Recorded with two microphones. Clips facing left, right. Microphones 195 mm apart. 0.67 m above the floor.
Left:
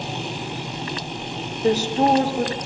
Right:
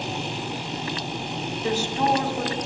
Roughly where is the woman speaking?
Left.